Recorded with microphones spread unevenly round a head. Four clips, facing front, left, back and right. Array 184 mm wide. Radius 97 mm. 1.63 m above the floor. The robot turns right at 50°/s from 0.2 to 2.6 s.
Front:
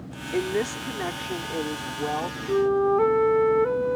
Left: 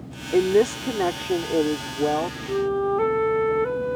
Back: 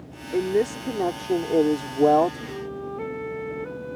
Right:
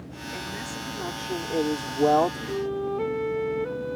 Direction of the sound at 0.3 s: 95° left.